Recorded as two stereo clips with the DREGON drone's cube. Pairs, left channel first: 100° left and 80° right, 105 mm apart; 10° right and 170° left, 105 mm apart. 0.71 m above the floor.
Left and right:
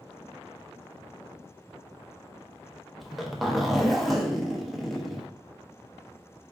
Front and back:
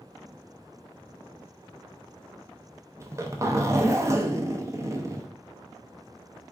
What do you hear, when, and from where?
3.0 s a zipper: 165° right, 0.7 m